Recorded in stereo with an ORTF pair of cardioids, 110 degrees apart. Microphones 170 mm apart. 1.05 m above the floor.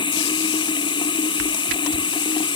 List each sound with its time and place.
0.0 s running water: 25° left